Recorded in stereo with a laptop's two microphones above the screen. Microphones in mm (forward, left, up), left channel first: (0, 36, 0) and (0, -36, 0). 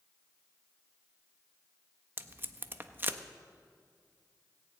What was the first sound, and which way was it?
Tape being pulled, 30° right (ahead or behind).